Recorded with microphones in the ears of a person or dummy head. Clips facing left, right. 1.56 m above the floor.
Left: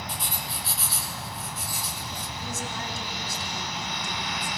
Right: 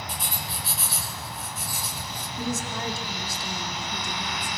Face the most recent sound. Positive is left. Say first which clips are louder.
# right 6 dB
turn(degrees=-65)  # may be behind; listen again after turning